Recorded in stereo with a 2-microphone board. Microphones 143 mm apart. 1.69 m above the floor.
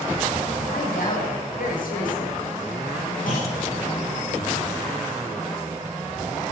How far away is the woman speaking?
About 6.5 m.